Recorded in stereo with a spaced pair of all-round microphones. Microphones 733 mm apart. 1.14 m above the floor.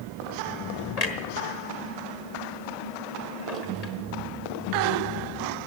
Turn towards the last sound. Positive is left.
turn(degrees=55)  # may be behind; listen again after turning